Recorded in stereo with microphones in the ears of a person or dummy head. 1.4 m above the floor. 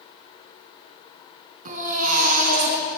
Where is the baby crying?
45° right (ahead or behind), 5 m.